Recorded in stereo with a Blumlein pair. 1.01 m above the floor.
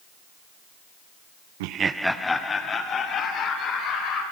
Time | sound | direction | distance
1.6 | laughter | 55° right | 0.5 m